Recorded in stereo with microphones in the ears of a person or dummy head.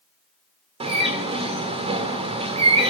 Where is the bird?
35° right (ahead or behind), 1.9 m.